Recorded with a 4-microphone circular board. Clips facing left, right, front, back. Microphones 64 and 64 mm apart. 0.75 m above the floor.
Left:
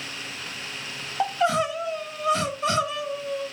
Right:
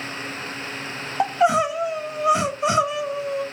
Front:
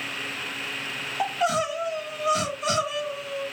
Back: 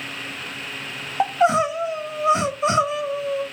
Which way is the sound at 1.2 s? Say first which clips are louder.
Right 4 dB, back 7 dB; 145° right.